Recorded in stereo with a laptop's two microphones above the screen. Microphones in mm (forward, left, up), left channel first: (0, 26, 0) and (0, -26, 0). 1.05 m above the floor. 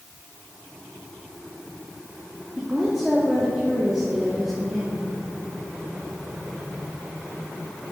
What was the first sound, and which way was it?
A woman speaking, 10° right (ahead or behind).